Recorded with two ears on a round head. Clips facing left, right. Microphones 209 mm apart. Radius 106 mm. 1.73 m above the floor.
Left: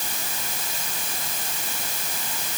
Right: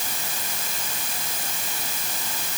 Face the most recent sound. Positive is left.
No sound to turn to.